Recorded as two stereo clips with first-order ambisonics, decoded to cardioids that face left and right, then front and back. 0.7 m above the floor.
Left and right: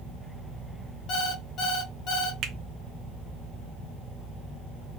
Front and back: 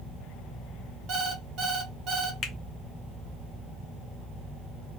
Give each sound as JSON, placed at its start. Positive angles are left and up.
{"t": 1.1, "sound": "an alarm clock", "azimuth_deg": 130, "distance_m": 0.8}
{"t": 2.4, "sound": "a finger snap", "azimuth_deg": -50, "distance_m": 0.5}